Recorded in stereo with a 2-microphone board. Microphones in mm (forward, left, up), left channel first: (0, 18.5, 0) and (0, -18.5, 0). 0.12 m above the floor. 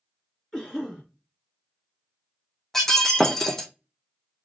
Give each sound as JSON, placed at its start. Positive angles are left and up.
{"t": 0.5, "sound": "a cough", "side_deg": 10, "distance_m": 1.9}
{"t": 2.7, "sound": "breaking glass", "side_deg": 10, "distance_m": 0.7}